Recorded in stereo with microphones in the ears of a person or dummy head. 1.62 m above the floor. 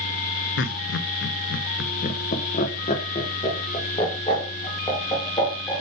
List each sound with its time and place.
0.6 s laughter: 65° left (ahead or behind), 0.8 m; by 5.8 s 20° left (ahead or behind), 3 m